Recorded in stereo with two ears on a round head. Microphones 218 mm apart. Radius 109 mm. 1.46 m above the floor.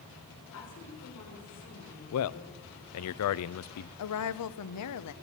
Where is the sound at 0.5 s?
65° left (ahead or behind), 5 m.